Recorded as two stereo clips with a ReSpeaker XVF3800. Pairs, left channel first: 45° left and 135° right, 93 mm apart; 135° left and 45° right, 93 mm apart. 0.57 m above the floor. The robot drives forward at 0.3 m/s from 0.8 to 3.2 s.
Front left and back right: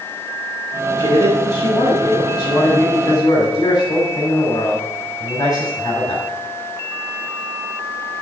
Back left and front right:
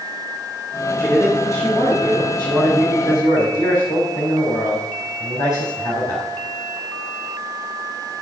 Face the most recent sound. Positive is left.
turn(degrees=85)